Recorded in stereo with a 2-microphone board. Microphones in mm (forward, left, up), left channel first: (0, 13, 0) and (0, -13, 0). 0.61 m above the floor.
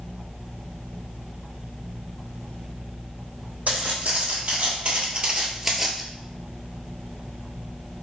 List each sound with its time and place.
3.7 s footsteps: 65° right (ahead or behind), 1.5 m; by 6.0 s centre (ahead or behind), 0.7 m